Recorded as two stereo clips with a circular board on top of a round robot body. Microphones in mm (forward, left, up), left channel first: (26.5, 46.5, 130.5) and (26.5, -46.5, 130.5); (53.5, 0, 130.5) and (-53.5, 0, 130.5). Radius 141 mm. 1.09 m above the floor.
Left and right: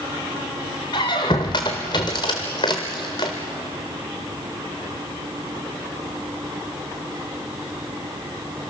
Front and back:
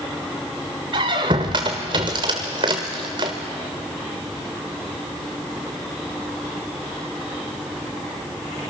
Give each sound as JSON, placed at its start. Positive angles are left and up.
{"t": 0.9, "sound": "a squeak", "azimuth_deg": 140, "distance_m": 0.9}